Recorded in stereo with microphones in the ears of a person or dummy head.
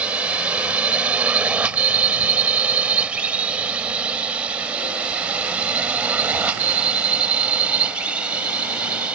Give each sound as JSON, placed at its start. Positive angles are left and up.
{"t": 0.0, "sound": "a drone", "side_deg": -10}